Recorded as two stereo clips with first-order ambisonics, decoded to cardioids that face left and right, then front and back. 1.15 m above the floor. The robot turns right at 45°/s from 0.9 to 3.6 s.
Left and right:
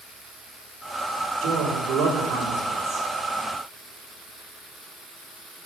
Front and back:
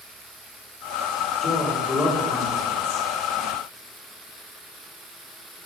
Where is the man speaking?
100° right, 3.5 m; by 3.1 s 25° right, 3.5 m.